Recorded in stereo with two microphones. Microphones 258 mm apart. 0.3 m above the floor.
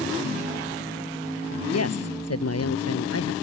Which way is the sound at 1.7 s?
70° left (ahead or behind).